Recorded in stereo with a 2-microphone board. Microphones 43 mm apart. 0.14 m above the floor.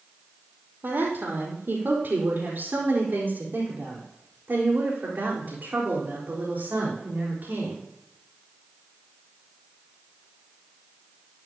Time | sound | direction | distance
0.8 | a woman speaking | 55° right (ahead or behind) | 4 m